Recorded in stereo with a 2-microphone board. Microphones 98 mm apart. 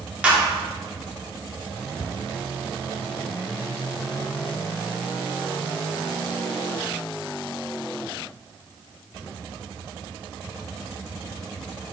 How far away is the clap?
About 2 m.